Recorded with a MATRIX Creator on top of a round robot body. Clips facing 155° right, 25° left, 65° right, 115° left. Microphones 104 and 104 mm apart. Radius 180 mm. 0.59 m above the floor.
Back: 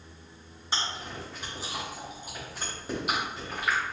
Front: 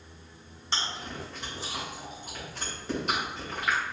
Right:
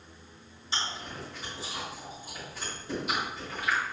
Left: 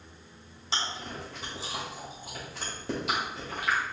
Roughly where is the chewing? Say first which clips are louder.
Even, left 1 dB; behind left.